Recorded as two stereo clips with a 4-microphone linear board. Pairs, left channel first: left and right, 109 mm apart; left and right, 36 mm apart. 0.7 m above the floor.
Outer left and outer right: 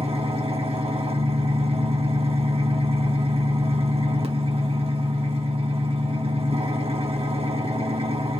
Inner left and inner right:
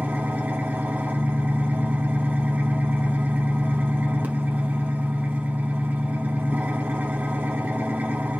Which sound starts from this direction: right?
An engine running, at 0.0 s.